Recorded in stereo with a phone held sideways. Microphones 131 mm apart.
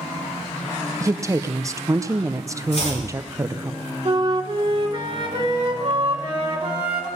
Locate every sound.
1.0 s a woman speaking: 25° right (ahead or behind), 0.7 m
2.7 s chopping: 60° left (ahead or behind), 5 m
4.0 s a flute: 40° right (ahead or behind), 2 m